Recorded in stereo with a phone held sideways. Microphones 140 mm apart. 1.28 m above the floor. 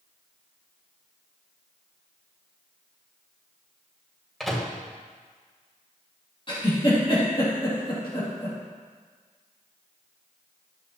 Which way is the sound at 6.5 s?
35° left (ahead or behind).